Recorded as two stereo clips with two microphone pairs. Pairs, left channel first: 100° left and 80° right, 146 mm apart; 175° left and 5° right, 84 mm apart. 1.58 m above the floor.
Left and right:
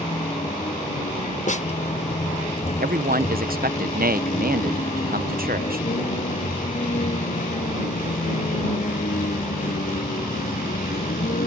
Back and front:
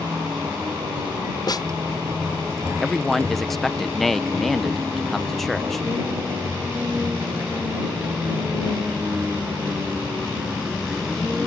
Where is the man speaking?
95° right.